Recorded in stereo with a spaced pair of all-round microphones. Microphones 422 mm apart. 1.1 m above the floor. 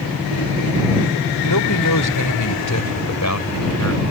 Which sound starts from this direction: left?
A man speaking, at 1.5 s.